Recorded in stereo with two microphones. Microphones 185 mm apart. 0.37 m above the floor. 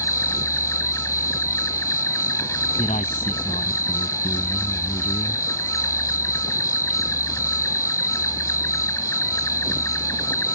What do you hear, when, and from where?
0.0 s an insect: 15° left (ahead or behind)
2.8 s a man speaking: 40° left (ahead or behind)